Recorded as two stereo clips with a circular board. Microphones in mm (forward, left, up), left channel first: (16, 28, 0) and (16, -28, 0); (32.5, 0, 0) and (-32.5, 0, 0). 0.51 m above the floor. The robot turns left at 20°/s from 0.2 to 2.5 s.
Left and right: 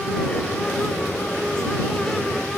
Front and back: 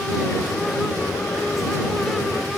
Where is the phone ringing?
No phone ringing in this recording.